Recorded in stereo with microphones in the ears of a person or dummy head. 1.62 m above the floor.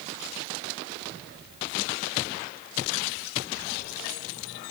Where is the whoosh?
I don't hear a whoosh.